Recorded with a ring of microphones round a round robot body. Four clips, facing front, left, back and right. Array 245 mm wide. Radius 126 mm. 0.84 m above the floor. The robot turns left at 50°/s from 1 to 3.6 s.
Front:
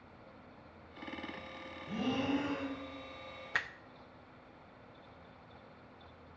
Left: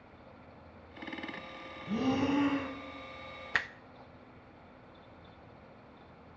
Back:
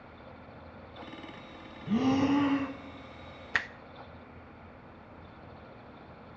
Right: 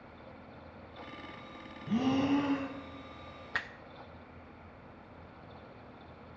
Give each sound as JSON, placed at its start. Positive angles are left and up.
{"t": 1.9, "sound": "breathing", "azimuth_deg": -165, "distance_m": 1.2}
{"t": 3.5, "sound": "a finger snap", "azimuth_deg": 145, "distance_m": 0.5}